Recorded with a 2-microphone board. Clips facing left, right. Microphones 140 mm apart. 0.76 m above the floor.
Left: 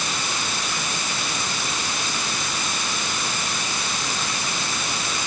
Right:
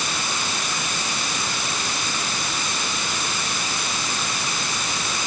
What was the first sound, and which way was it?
Only background noise.